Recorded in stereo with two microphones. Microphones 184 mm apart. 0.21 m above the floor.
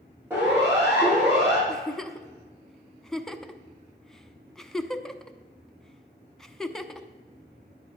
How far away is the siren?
About 8 m.